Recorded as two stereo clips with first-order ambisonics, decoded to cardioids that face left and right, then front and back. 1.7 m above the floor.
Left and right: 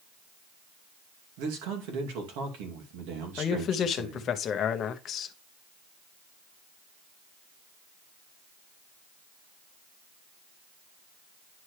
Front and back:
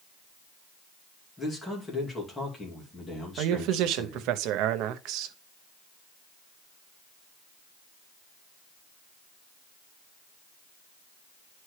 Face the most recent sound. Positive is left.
turn(degrees=150)